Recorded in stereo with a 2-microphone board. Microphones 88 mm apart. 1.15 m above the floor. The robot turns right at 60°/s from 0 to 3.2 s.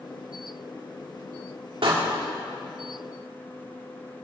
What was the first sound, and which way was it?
A door slam, 85° right.